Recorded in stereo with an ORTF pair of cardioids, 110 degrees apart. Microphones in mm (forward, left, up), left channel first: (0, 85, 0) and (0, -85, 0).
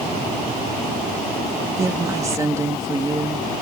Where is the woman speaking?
20° right.